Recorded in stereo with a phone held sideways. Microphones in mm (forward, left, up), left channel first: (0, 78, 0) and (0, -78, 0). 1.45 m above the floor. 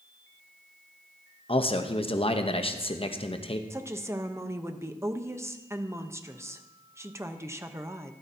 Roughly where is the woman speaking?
Centre.